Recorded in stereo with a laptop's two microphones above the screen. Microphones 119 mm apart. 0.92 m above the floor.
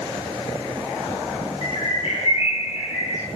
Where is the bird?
65° left (ahead or behind), 3 m.